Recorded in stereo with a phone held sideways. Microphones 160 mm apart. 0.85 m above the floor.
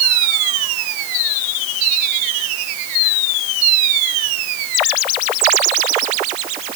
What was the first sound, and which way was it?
Only background noise.